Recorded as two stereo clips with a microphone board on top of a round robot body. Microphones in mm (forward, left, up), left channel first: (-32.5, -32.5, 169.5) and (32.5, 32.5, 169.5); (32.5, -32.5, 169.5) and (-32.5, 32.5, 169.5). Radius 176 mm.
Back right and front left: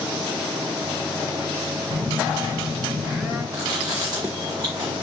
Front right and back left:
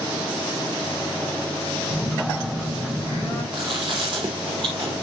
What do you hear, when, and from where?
1.9 s a phone buzzing: 30° right, 3.5 m
3.5 s chewing: 95° left, 0.5 m